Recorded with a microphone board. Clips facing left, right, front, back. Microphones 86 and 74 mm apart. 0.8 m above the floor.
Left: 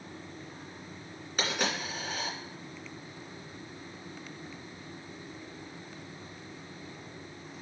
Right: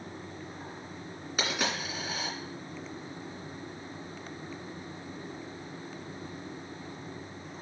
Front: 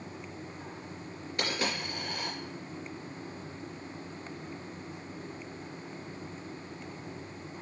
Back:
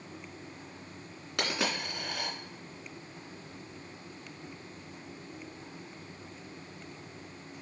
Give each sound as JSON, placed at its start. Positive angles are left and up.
{"t": 1.4, "sound": "a dropped coin", "azimuth_deg": -175, "distance_m": 2.5}